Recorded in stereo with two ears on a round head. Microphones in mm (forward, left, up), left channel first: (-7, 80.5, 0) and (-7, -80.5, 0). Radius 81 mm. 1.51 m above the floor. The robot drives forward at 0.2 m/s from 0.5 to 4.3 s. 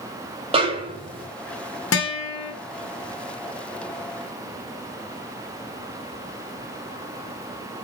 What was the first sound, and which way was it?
A snare drum, 30° right (ahead or behind).